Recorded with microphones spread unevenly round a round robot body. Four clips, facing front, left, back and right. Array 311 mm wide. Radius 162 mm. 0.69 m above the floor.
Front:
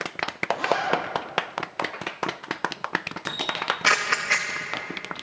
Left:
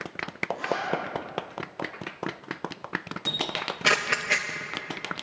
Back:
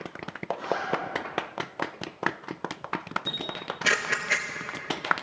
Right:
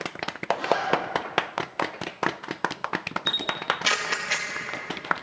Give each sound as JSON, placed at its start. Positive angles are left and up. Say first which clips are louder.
{"t": 0.5, "sound": "a zipper", "louder": "right 5 dB, front 5 dB", "azimuth_deg": -20, "distance_m": 3.5}
{"t": 3.3, "sound": "a camera shutter", "louder": "right 2 dB, front 6 dB", "azimuth_deg": 100, "distance_m": 0.8}